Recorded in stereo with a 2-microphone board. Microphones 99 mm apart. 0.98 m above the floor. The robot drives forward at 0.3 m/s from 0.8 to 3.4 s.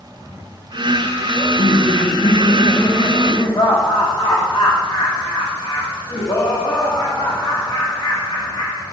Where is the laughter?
65° left (ahead or behind), 1.3 m; by 8.8 s 45° left (ahead or behind), 1.7 m.